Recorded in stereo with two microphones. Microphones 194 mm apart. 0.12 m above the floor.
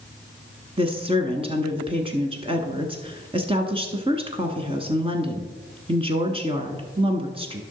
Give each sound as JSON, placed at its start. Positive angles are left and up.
{"t": 0.8, "sound": "a woman speaking", "side_deg": -30, "distance_m": 1.1}